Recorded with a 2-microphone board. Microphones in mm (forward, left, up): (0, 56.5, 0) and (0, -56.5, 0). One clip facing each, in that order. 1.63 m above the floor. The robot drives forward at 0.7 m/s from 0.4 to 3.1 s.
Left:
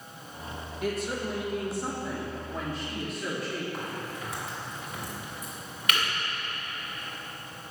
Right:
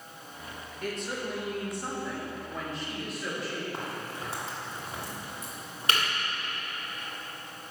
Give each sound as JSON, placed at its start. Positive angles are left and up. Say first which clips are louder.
{"t": 0.8, "sound": "a woman speaking", "louder": "left 3 dB", "side_deg": 5, "distance_m": 2.0}
{"t": 3.7, "sound": "a crack", "louder": "left 1 dB", "side_deg": -35, "distance_m": 2.5}